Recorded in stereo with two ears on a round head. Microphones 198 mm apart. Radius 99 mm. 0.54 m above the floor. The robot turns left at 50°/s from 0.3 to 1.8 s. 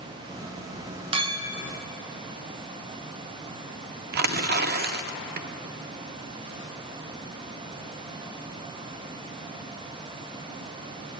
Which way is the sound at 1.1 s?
25° right (ahead or behind).